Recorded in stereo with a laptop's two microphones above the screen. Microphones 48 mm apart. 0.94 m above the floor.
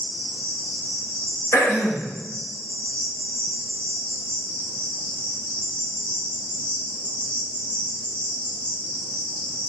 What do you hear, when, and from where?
0.0 s an insect: 30° left (ahead or behind), 4.5 m
1.5 s throat clearing: 75° left (ahead or behind), 3 m